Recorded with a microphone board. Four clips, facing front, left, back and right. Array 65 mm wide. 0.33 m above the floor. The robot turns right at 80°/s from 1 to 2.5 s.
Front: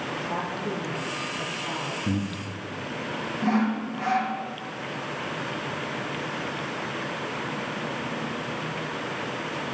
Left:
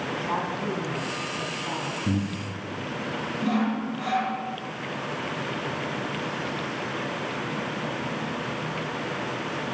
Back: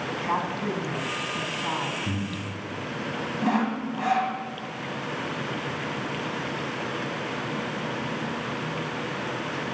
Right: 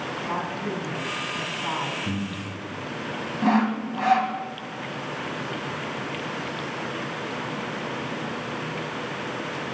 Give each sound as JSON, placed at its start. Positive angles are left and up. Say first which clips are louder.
{"t": 0.1, "sound": "a woman speaking", "louder": "left 1 dB, back 5 dB", "azimuth_deg": 170, "distance_m": 3.0}
{"t": 2.0, "sound": "breathing", "louder": "left 2 dB, front 2 dB", "azimuth_deg": 45, "distance_m": 1.4}
{"t": 3.4, "sound": "sawing", "louder": "right 4 dB, front 1 dB", "azimuth_deg": -100, "distance_m": 1.4}